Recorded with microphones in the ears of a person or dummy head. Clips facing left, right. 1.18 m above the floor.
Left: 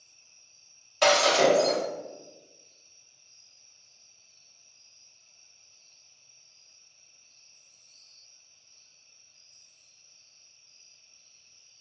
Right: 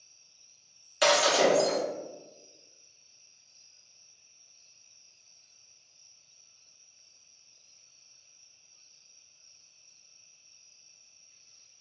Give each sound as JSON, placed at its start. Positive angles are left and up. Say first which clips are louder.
{"t": 1.0, "sound": "breaking glass", "louder": "left 2 dB", "side_deg": -15, "distance_m": 0.8}